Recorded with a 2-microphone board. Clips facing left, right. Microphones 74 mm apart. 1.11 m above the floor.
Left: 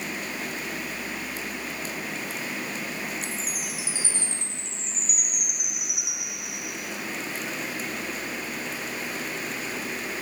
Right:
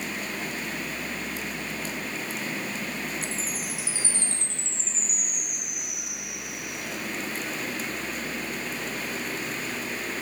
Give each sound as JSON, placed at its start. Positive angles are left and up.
{"t": 3.2, "sound": "a chime", "side_deg": 15, "distance_m": 4.0}